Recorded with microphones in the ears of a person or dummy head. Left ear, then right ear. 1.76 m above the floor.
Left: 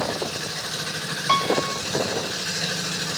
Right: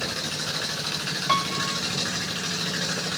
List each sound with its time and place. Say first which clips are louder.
1.3 s a piano: left 4 dB; 10° left (ahead or behind)